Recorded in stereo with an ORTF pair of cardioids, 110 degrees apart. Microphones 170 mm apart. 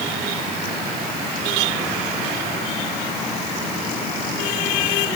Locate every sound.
Only background noise.